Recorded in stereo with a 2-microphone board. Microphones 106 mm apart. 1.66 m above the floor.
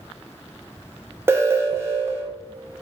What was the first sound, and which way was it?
An alarm, 20° right (ahead or behind).